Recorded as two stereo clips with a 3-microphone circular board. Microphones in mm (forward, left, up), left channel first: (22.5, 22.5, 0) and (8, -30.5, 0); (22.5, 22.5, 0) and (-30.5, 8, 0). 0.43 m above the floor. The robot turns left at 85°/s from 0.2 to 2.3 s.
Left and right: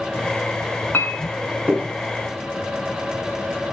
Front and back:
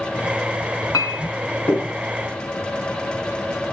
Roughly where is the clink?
Ahead left.